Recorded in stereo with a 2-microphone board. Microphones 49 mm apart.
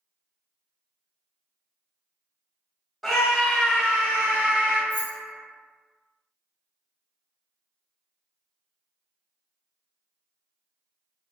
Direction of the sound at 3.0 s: 5° left (ahead or behind).